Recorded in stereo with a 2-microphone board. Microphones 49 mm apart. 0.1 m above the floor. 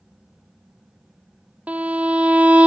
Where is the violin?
30° right (ahead or behind), 0.6 m.